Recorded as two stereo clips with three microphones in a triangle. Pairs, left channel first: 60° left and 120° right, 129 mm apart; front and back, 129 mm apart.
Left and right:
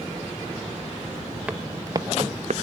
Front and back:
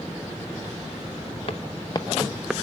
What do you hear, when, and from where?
1.5 s footsteps: 40° right, 0.8 m; by 2.5 s 100° right, 0.5 m